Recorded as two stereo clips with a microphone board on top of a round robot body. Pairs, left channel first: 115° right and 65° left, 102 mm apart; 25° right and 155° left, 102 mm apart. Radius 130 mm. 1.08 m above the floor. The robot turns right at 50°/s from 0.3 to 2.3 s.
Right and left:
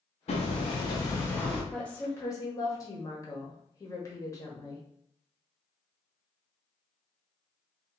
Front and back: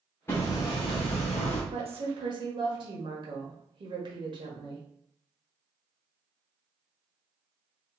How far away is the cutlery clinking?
No cutlery clinking in this recording.